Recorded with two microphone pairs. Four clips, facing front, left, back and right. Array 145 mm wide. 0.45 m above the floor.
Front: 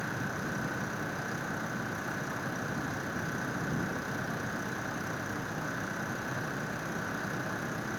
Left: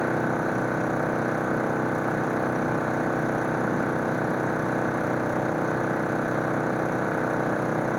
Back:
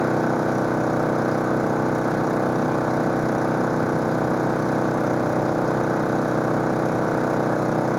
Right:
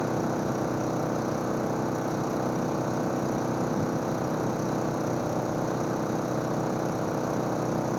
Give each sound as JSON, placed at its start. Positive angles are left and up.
{"t": 0.0, "sound": "an engine running", "azimuth_deg": 170}